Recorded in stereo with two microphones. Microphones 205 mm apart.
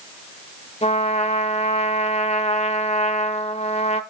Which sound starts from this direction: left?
A trumpet, at 0.8 s.